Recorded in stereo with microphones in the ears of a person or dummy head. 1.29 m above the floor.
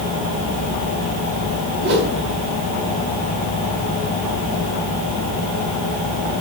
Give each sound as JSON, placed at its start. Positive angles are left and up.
{"t": 1.8, "sound": "a whoosh", "side_deg": -55, "distance_m": 5.0}